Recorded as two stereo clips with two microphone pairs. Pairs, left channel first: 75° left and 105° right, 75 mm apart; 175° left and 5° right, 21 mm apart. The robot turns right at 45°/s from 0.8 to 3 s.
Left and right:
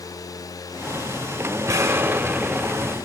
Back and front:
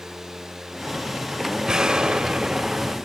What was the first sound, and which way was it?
An explosion, 60° right.